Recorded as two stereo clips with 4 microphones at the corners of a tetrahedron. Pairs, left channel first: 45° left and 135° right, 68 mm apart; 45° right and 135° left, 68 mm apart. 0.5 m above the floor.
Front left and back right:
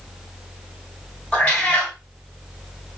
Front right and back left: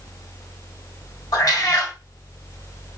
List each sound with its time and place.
1.3 s a cat meowing: 25° right, 1.0 m